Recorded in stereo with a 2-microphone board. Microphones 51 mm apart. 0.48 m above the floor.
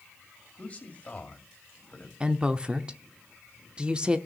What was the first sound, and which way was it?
A man speaking, 30° left (ahead or behind).